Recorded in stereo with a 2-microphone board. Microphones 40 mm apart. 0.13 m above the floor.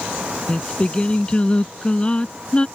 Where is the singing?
25° left (ahead or behind).